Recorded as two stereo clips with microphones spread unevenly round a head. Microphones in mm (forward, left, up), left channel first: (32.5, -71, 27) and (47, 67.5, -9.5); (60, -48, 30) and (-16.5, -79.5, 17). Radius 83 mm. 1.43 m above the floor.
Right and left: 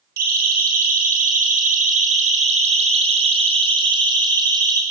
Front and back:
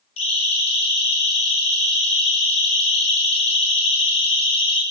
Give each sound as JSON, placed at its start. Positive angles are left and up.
{"t": 0.2, "sound": "a siren", "azimuth_deg": 65, "distance_m": 6.0}